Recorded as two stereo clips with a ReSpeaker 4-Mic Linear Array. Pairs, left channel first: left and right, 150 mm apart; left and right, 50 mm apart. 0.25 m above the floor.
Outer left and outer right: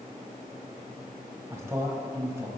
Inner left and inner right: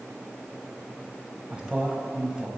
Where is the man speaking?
20° right (ahead or behind), 1.0 m.